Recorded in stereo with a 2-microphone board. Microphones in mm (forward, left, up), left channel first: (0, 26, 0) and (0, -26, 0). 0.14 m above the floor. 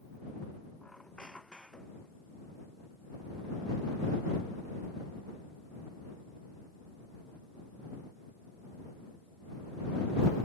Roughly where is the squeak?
Centre.